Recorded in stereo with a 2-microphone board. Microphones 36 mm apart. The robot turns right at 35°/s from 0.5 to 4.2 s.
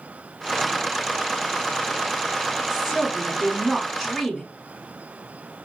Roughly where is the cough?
I don't hear a cough.